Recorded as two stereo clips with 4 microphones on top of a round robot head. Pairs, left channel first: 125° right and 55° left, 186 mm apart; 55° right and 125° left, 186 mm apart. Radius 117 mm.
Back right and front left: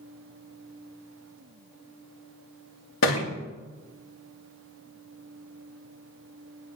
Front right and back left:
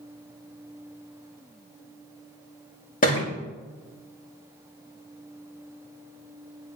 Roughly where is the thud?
Right.